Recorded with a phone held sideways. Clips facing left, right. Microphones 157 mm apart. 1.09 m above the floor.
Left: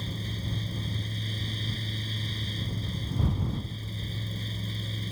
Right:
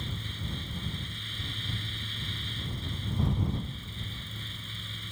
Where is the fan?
40° left (ahead or behind).